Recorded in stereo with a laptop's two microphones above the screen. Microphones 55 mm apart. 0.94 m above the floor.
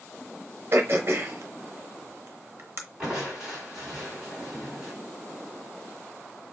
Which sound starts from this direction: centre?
Crushing, at 3.0 s.